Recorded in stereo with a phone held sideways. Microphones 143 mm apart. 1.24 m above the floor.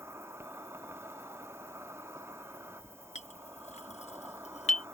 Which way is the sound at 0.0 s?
20° right (ahead or behind).